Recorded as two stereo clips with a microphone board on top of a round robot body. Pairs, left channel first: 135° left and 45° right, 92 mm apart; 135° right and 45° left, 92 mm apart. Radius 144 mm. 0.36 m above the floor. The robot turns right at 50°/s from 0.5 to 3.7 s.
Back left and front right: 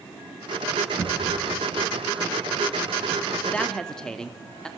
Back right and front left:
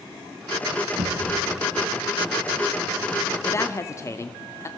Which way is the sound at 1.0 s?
15° left.